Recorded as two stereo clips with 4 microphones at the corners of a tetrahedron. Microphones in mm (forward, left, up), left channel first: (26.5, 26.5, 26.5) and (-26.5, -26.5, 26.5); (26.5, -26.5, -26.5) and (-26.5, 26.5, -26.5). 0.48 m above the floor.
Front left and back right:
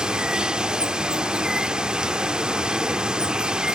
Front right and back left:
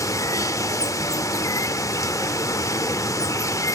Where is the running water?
60° right, 0.7 m.